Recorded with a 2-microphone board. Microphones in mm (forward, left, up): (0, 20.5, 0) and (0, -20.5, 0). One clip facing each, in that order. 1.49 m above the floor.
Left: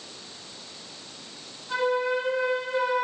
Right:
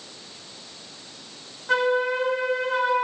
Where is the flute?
85° right, 1.9 m.